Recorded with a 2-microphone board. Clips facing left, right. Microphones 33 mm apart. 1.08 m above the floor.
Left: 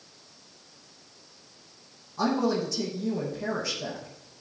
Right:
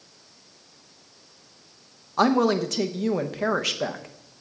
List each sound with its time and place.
2.2 s a woman speaking: 70° right (ahead or behind), 0.8 m